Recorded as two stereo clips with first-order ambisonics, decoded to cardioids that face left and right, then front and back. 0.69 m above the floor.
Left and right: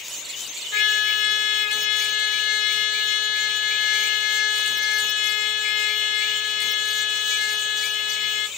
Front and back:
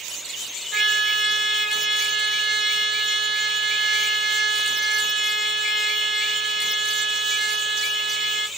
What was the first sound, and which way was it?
A trumpet, 100° left.